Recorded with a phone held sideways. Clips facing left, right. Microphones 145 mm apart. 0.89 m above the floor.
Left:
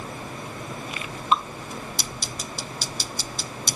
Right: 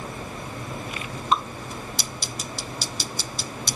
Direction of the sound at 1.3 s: 40° right (ahead or behind).